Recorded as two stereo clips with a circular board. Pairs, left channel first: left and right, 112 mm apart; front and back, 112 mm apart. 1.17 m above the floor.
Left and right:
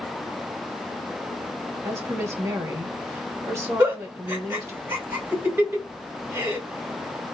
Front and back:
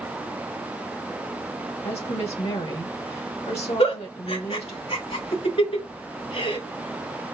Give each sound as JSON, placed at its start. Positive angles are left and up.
{"t": 1.8, "sound": "a woman speaking", "azimuth_deg": -25, "distance_m": 1.5}
{"t": 3.8, "sound": "a giggle", "azimuth_deg": -20, "distance_m": 2.5}